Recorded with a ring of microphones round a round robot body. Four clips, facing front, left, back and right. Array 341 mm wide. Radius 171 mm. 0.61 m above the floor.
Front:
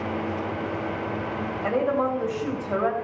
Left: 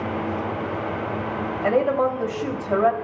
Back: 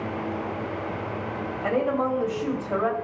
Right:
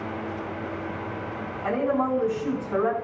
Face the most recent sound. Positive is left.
turn(degrees=95)